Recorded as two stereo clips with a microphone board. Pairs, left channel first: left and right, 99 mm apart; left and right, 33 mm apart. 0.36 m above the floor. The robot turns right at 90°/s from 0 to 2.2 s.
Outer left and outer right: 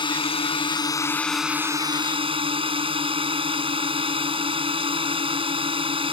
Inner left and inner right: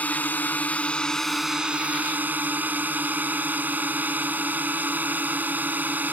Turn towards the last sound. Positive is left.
turn(degrees=-105)